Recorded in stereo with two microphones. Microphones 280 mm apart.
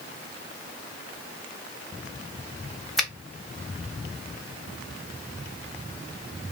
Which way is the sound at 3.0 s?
Centre (ahead or behind).